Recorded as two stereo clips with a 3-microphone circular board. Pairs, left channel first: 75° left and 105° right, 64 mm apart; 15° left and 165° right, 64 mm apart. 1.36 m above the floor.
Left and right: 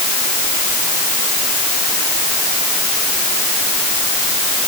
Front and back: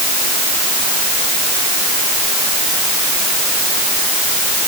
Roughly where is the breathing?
No breathing in this recording.